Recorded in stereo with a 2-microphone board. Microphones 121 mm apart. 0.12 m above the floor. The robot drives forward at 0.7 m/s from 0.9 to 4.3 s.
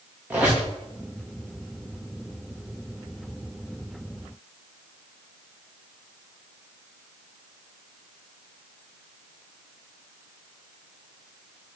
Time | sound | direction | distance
0.3 | a squeak | 15° right (ahead or behind) | 4.5 m